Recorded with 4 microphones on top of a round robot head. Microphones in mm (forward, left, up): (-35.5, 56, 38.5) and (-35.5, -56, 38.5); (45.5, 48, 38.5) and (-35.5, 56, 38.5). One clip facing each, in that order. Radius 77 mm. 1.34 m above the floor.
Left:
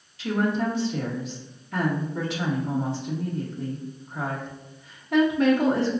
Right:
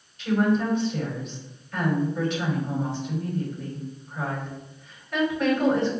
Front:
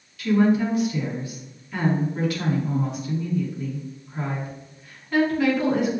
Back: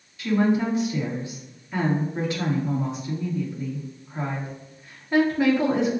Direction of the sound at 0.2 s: 110° left.